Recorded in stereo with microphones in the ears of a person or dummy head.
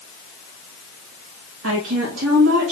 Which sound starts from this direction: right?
A woman speaking, at 1.6 s.